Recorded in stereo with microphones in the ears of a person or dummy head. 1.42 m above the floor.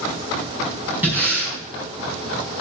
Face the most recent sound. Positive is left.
turn(degrees=-10)  # may be behind; listen again after turning